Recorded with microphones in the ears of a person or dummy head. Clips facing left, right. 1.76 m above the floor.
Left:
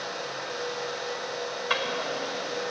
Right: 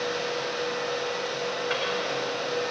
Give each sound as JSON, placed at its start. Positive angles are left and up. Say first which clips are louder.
{"t": 1.7, "sound": "a drawer", "louder": "right 2 dB", "side_deg": 55, "distance_m": 2.5}